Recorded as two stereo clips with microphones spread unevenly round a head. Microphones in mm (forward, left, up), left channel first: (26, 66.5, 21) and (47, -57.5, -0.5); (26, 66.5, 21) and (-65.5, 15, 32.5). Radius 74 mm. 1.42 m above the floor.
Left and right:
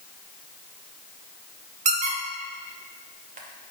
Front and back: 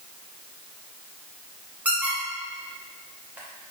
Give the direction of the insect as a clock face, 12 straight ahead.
No insect in this recording.